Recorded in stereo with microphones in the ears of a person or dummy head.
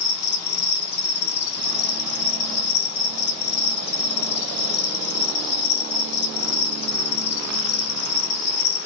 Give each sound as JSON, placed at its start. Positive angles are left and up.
{"t": 0.0, "sound": "an insect", "side_deg": 70, "distance_m": 0.8}